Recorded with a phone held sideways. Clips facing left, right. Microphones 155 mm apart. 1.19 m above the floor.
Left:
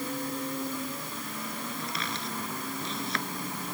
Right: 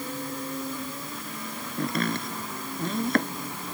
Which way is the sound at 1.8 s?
50° right (ahead or behind).